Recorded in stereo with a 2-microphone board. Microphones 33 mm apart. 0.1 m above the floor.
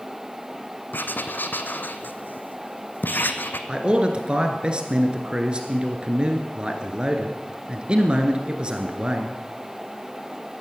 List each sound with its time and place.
0.9 s writing: 75° left (ahead or behind), 0.9 m
3.7 s a man speaking: 30° right (ahead or behind), 1.9 m